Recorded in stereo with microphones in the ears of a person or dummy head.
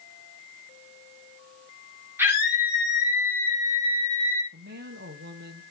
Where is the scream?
10° right (ahead or behind), 4.5 m.